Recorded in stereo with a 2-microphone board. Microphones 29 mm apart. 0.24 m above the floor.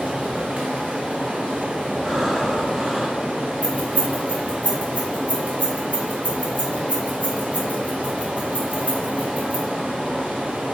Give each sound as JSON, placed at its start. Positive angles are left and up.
{"t": 0.0, "sound": "running water", "side_deg": -60, "distance_m": 1.5}
{"t": 2.0, "sound": "breathing", "side_deg": 0, "distance_m": 0.9}
{"t": 3.6, "sound": "keys jangling", "side_deg": -55, "distance_m": 1.5}